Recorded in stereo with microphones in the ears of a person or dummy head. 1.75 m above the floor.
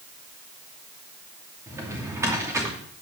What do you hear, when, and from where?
1.7 s a drawer: 15° right (ahead or behind), 2.5 m